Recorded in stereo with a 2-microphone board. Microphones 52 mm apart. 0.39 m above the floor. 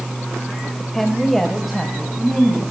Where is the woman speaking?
5° left (ahead or behind), 1.8 m; by 2.6 s 5° right (ahead or behind), 3.5 m.